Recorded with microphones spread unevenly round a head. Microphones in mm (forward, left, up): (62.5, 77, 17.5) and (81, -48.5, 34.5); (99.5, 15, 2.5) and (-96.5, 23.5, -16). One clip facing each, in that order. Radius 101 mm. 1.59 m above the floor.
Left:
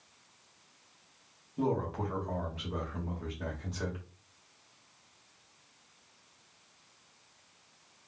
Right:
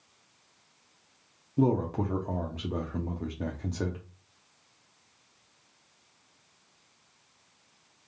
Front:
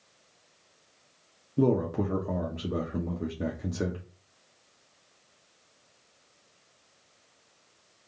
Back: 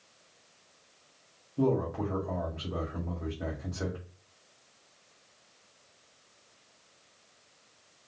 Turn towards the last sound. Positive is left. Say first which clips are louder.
# right 6 dB, front 3 dB
turn(degrees=-40)